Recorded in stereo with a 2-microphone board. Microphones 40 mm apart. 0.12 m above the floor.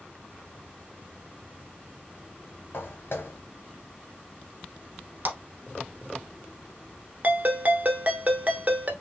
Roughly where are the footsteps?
Left.